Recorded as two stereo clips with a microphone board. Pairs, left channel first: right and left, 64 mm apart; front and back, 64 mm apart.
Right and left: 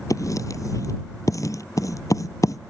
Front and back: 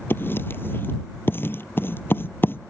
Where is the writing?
55° right.